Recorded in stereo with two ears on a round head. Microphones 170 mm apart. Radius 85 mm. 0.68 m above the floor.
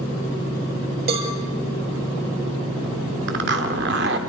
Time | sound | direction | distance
1.1 | a cowbell | 50° right (ahead or behind) | 6 m
3.3 | a zipper | 60° right (ahead or behind) | 2.5 m